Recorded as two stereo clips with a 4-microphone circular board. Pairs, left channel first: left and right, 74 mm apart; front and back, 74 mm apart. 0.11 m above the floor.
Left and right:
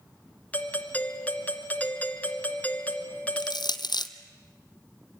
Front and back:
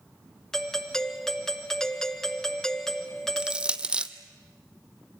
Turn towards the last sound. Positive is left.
turn(degrees=105)